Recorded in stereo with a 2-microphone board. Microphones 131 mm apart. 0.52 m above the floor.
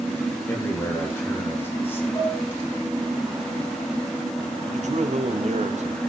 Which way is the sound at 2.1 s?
45° left (ahead or behind).